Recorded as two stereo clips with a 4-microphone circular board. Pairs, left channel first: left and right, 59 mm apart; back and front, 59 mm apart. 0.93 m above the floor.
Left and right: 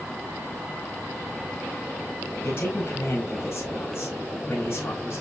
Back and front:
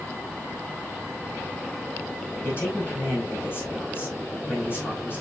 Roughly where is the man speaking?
Behind left.